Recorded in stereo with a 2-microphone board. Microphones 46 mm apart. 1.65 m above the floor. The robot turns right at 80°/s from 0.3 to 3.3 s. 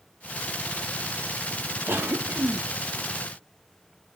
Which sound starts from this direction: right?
A cough, at 1.9 s.